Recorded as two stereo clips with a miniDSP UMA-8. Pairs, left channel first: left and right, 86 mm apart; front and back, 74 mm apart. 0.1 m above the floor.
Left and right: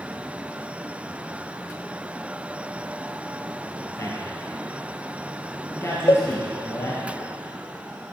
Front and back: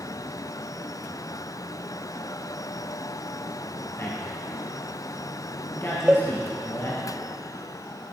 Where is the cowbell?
105° left, 1.4 m.